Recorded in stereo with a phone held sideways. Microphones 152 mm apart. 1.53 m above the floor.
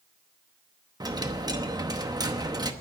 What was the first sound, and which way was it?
A dropped coin, 25° right (ahead or behind).